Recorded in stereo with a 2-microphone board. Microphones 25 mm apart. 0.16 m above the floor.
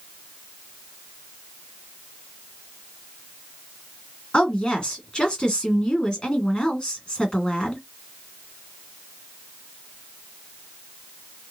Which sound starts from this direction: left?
A woman speaking, at 4.3 s.